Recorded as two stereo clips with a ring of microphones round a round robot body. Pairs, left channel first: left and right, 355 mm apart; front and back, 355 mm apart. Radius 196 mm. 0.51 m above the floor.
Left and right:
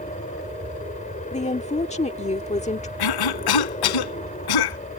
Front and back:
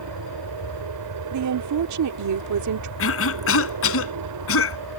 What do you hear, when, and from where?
0.0 s an aircraft: 155° left
1.3 s a woman speaking: 155° left
3.0 s a cough: 60° left